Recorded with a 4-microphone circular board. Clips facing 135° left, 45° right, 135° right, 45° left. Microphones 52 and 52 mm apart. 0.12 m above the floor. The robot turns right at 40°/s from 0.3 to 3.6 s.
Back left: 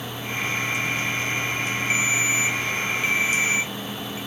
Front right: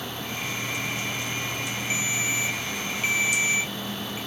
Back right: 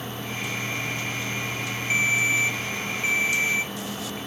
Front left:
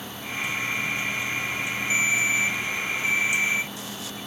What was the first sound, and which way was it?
A ringtone, straight behind.